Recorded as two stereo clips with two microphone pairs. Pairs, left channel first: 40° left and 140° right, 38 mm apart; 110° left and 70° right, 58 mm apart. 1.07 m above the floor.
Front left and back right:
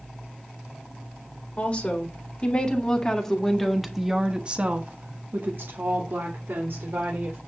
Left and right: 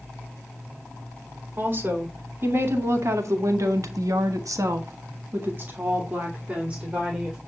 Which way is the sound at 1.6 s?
15° right.